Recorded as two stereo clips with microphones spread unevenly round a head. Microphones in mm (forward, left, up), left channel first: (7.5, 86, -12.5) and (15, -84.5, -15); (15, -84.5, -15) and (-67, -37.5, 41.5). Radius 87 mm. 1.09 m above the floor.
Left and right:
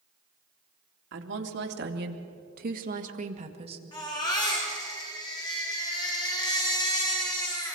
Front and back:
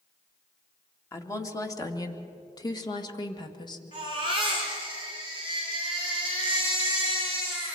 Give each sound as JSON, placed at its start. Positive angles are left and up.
{"t": 1.1, "sound": "a woman speaking", "azimuth_deg": -75, "distance_m": 2.5}
{"t": 3.9, "sound": "a baby crying", "azimuth_deg": 25, "distance_m": 5.0}